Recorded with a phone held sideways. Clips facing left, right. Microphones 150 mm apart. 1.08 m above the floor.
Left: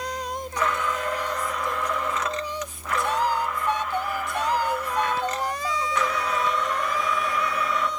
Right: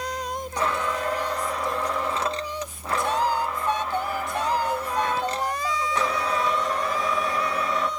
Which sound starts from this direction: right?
A blender, at 0.6 s.